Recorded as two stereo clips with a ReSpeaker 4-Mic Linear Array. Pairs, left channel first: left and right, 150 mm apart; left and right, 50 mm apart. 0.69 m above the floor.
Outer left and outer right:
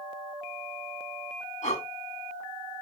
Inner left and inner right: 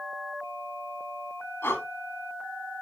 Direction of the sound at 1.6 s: 55° left (ahead or behind).